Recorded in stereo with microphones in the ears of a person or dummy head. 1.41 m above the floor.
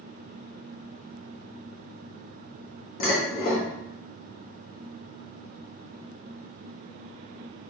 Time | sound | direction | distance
3.0 | dishes clattering | 50° left (ahead or behind) | 1.1 m